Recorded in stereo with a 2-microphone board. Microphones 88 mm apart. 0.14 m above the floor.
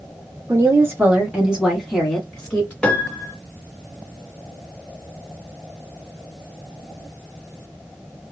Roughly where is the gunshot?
No gunshot in this recording.